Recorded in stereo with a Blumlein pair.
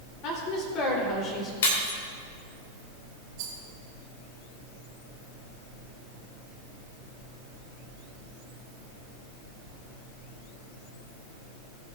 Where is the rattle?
45° right, 2.5 m.